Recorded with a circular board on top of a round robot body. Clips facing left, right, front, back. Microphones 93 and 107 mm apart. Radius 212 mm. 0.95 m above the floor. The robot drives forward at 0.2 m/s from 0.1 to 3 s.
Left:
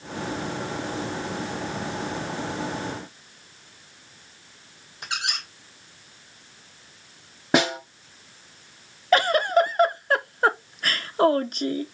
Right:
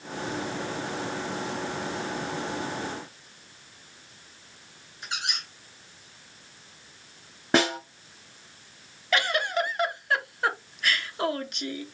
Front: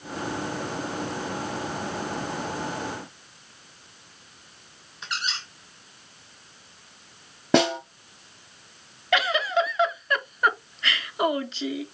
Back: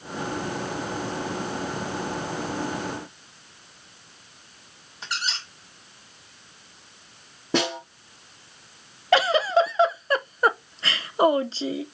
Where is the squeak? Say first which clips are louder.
Left 3 dB, back 1 dB; 120° left, 1.4 m.